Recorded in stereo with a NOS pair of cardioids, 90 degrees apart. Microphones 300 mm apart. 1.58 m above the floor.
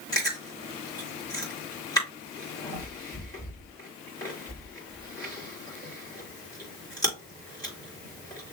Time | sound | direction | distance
0.1 | chewing | 15° left | 4 m